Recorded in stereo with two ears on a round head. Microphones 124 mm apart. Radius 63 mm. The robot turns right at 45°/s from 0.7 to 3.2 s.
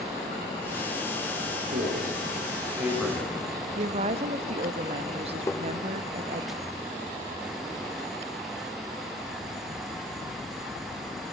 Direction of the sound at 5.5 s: 20° left (ahead or behind).